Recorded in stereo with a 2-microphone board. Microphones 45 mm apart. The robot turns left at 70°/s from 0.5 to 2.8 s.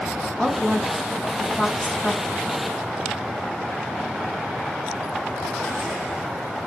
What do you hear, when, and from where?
0.4 s a woman speaking: 10° left (ahead or behind), 1.4 m